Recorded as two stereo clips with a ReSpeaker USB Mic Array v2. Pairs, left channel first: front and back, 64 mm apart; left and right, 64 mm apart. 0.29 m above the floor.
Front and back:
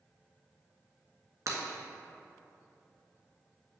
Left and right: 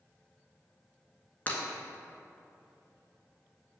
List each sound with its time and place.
1.5 s breaking glass: 155° left, 1.0 m